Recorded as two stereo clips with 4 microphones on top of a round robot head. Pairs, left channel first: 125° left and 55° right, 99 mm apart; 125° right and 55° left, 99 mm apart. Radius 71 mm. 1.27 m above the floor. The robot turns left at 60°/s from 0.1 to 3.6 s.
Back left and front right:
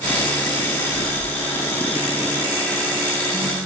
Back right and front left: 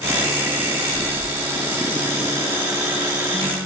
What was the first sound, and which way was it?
A phone buzzing, 150° left.